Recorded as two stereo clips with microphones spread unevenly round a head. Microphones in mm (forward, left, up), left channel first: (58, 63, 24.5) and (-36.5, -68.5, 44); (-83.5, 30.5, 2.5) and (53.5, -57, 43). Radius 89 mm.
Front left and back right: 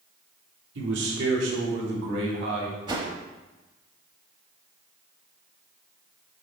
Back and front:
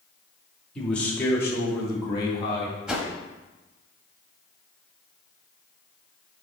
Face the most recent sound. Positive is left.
turn(degrees=-90)